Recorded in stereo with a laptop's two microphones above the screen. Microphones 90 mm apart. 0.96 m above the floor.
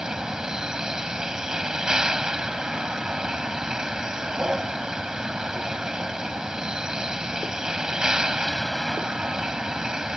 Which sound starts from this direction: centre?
A vehicle, at 0.0 s.